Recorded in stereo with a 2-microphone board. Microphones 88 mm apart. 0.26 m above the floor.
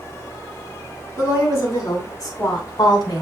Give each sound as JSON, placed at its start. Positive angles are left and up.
{"t": 1.2, "sound": "a woman speaking", "side_deg": 35, "distance_m": 3.0}